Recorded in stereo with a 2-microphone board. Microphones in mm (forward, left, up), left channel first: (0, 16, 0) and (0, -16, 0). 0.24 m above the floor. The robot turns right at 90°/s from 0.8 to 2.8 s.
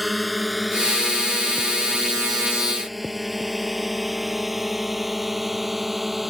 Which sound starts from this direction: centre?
A drone, at 0.0 s.